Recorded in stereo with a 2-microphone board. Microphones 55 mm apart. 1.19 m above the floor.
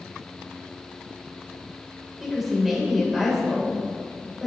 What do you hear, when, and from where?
2.2 s a woman speaking: 5° right (ahead or behind), 4.5 m